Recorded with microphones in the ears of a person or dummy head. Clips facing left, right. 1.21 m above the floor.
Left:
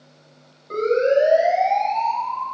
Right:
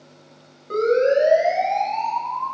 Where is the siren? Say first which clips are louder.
Even; 30° right (ahead or behind), 9 m; by 2.5 s 25° right (ahead or behind), 9.5 m.